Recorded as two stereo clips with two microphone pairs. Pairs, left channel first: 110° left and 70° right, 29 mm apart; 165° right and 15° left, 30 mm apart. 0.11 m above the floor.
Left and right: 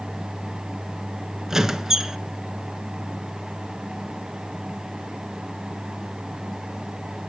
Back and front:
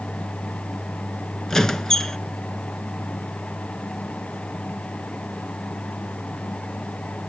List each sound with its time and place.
1.5 s a squeak: 120° right, 0.9 m